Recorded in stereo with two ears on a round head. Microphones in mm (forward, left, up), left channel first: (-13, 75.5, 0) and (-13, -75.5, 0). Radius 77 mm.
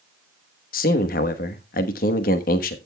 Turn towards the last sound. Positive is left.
turn(degrees=50)  # may be behind; listen again after turning